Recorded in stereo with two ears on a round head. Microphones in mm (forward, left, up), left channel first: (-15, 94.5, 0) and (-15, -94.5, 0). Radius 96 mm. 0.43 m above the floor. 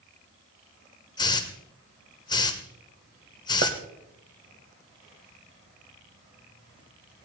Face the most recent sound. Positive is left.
turn(degrees=-45)  # may be behind; listen again after turning